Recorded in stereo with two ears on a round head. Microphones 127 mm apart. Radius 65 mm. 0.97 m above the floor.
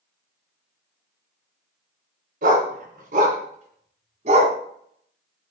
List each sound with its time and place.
2.4 s a dog barking: 75° right (ahead or behind), 3.5 m; by 4.5 s 55° right (ahead or behind), 2.5 m